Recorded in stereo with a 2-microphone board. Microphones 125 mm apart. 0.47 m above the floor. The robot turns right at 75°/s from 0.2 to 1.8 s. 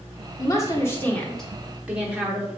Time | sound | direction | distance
0.4 | a woman speaking | 30° left (ahead or behind) | 0.8 m